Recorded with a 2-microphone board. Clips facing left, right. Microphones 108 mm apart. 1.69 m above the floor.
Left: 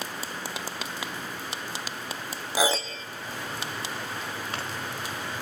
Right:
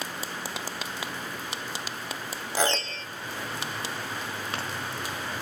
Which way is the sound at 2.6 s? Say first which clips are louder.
Left 2 dB; 10° left (ahead or behind).